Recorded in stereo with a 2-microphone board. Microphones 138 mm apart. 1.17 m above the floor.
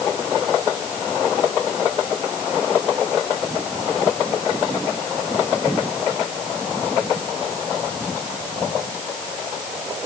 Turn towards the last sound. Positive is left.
No sound to turn to.